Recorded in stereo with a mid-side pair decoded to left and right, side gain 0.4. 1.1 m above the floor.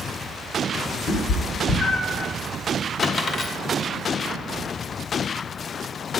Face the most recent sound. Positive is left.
turn(degrees=50)